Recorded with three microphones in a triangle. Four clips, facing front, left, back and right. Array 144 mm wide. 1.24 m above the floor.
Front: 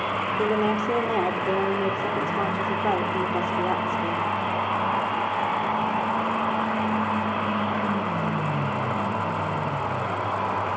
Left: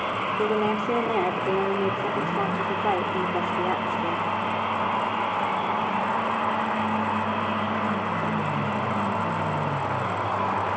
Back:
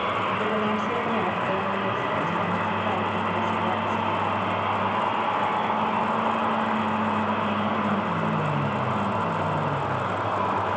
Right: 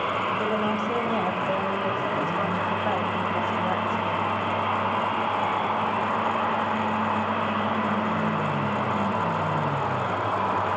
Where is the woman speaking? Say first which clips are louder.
Left 2 dB, front 2 dB; 50° left, 4.5 m.